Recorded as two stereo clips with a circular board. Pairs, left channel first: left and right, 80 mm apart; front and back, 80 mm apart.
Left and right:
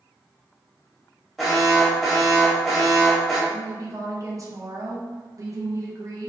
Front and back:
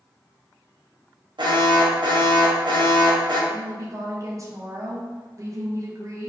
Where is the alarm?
Straight behind, 0.7 m.